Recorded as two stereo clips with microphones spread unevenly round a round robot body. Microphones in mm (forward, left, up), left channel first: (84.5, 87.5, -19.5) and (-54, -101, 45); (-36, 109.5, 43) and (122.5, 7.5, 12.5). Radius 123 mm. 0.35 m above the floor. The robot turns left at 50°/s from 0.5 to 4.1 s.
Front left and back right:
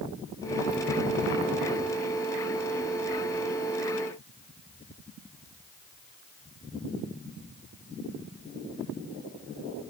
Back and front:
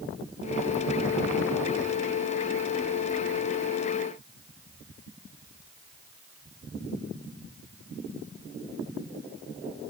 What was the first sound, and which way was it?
Only background noise.